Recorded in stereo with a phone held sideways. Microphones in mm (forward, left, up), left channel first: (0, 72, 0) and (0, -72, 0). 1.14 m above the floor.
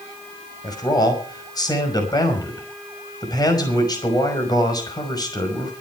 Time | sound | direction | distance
0.6 | a man speaking | 30° left (ahead or behind) | 5.5 m